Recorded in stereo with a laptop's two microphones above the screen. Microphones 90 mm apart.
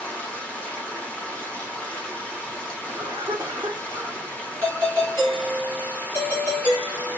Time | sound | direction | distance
0.0 | running water | 15° left (ahead or behind) | 0.9 m
2.9 | a cough | 45° right (ahead or behind) | 1.9 m
4.6 | a doorbell | 35° right (ahead or behind) | 2 m